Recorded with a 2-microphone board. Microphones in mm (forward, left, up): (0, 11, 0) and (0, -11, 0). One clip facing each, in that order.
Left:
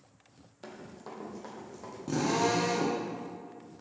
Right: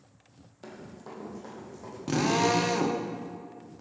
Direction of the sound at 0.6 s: 20° left (ahead or behind).